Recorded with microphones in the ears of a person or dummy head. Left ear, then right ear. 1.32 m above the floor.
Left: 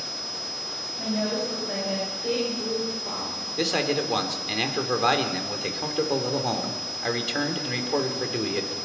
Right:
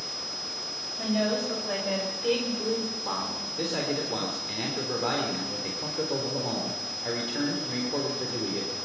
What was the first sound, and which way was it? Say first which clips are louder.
A woman speaking: right 1 dB; 35° right (ahead or behind).